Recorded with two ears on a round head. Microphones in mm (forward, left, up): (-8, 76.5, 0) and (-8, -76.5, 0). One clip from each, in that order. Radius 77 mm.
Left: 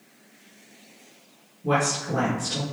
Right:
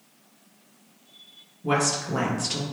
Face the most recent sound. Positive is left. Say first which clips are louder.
# even
turn(degrees=-40)  # may be behind; listen again after turning